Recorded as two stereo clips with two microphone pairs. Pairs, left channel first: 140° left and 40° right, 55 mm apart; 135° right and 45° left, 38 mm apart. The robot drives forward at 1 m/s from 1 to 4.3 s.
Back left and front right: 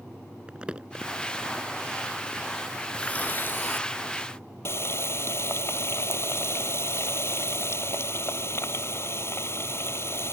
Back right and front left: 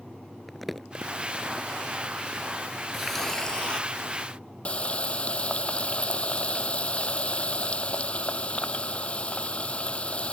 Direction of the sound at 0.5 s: 45° right.